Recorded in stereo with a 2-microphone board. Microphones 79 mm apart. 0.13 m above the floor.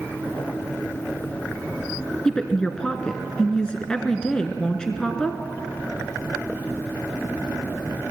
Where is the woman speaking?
10° left (ahead or behind), 1.2 m.